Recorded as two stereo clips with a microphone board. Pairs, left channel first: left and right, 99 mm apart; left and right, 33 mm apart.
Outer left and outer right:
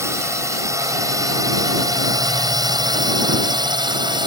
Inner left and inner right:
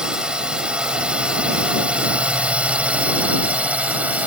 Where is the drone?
30° right (ahead or behind); by 4.3 s 50° right (ahead or behind).